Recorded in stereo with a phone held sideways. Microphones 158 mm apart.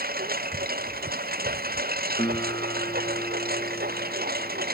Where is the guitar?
30° left (ahead or behind).